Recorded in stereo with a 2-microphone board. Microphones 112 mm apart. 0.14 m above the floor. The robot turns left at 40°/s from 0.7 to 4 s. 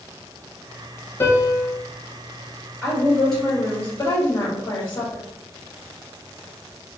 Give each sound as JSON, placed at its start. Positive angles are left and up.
{"t": 1.2, "sound": "a piano", "side_deg": 25, "distance_m": 0.5}
{"t": 2.8, "sound": "a woman speaking", "azimuth_deg": 170, "distance_m": 1.8}